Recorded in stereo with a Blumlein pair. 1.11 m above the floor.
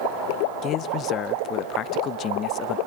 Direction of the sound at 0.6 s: 30° left.